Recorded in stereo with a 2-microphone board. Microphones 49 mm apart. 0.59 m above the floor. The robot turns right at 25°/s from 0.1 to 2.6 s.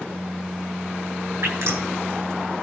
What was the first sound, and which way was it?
Dripping, 75° right (ahead or behind).